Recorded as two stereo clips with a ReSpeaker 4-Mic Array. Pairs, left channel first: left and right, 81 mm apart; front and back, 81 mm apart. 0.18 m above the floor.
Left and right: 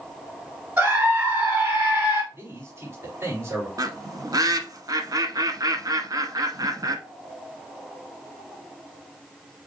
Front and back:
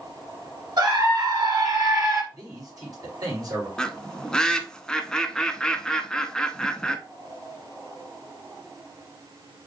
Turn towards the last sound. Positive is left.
turn(degrees=-80)